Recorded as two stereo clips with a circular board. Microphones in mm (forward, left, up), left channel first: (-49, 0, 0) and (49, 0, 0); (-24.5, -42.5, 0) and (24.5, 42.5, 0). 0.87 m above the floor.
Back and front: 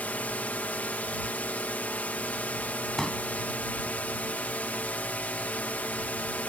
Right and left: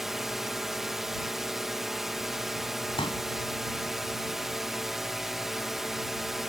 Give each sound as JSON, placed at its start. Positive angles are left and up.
{"t": 0.0, "sound": "a drone", "azimuth_deg": 140}
{"t": 3.0, "sound": "a pop", "azimuth_deg": -95}